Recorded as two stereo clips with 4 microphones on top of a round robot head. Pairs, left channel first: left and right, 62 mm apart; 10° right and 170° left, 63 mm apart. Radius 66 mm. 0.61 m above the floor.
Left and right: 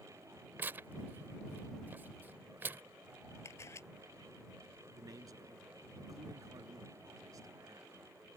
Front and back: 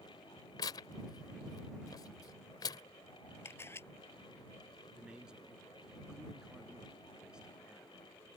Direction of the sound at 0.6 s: 25° right.